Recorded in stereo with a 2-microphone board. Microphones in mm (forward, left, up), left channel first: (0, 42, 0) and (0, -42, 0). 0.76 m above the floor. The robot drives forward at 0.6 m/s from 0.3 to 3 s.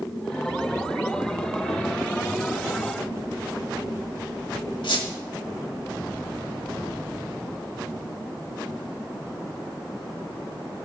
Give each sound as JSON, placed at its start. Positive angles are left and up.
{"t": 4.8, "sound": "a squeak", "side_deg": 80, "distance_m": 1.9}